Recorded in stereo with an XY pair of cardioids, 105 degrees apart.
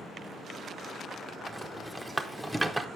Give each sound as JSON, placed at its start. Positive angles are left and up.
{"t": 1.5, "sound": "a rattle", "azimuth_deg": -5, "distance_m": 0.6}